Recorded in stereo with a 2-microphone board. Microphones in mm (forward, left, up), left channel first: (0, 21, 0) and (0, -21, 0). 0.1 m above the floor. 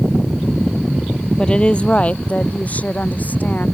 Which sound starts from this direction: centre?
A woman speaking, at 1.4 s.